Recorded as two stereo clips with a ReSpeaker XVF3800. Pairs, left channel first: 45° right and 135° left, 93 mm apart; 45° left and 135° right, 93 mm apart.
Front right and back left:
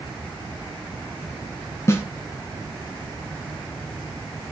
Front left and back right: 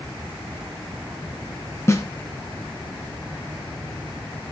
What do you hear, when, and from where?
1.9 s a snare drum: straight ahead, 1.9 m